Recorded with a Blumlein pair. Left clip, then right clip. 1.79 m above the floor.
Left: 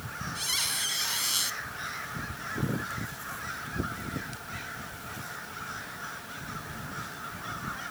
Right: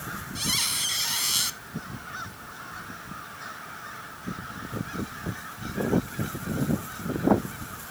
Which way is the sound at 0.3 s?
10° right.